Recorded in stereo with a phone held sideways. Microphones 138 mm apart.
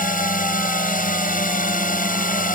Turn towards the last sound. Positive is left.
turn(degrees=85)